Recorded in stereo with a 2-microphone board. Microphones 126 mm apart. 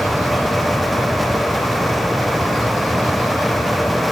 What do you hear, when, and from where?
Only background noise.